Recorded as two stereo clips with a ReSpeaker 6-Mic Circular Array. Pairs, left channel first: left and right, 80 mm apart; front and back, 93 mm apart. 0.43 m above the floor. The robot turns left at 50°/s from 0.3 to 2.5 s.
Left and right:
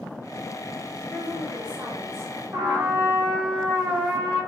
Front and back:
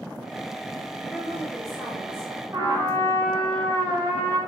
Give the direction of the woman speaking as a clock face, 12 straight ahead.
2 o'clock.